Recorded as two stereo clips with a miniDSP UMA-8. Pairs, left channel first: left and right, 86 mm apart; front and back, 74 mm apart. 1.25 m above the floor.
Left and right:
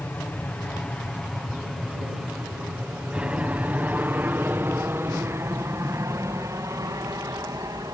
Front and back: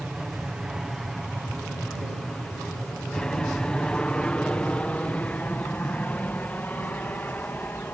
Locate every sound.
0.0 s an aircraft: 115° left; by 7.9 s 60° right